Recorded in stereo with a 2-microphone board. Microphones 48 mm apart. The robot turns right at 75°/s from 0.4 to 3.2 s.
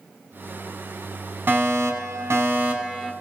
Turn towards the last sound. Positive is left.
turn(degrees=-5)